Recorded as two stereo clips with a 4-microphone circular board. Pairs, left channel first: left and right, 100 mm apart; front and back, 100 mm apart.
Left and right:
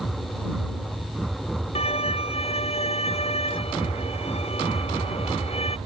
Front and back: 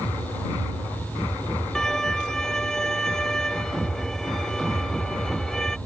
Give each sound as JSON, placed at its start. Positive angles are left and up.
{"t": 1.8, "sound": "a violin", "azimuth_deg": 85}